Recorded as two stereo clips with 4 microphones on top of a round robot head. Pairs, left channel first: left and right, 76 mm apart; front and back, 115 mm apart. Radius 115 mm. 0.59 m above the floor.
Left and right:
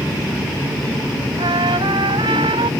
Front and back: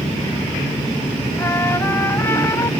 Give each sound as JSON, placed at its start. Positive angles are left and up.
{"t": 1.4, "sound": "a trumpet", "azimuth_deg": -70}